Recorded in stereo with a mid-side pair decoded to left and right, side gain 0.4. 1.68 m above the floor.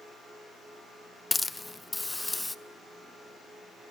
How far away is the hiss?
About 0.7 m.